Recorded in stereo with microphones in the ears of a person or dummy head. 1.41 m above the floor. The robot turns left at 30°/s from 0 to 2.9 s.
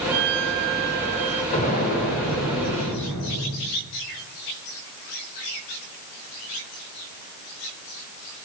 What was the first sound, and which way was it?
A violin, 105° right.